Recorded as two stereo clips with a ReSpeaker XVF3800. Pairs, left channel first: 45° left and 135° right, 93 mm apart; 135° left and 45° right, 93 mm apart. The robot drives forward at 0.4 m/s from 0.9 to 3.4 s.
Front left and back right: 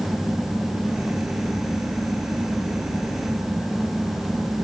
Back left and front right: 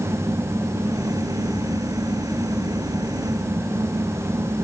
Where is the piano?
I don't hear a piano.